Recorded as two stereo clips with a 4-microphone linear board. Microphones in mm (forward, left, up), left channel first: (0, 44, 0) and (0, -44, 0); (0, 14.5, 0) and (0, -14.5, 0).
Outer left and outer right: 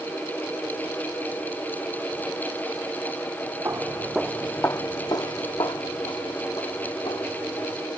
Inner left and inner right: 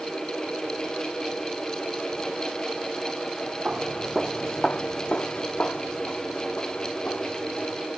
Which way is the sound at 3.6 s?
35° right (ahead or behind).